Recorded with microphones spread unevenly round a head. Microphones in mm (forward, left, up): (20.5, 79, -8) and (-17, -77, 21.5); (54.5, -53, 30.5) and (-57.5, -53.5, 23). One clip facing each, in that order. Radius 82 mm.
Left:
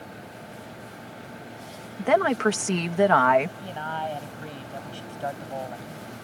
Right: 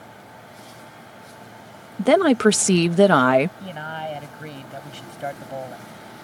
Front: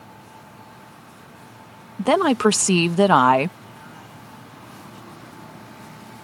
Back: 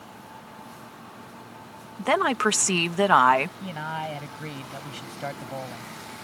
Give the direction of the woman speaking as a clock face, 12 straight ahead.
2 o'clock.